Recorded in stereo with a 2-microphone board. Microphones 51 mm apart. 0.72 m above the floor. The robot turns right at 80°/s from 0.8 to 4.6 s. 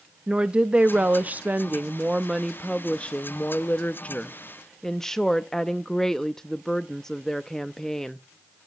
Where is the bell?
No bell in this recording.